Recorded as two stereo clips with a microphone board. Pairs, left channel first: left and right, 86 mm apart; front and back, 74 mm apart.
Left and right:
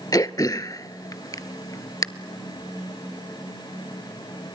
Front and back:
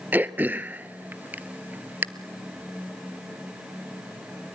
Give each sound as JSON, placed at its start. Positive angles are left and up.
{"t": 0.1, "sound": "throat clearing", "azimuth_deg": 120, "distance_m": 0.6}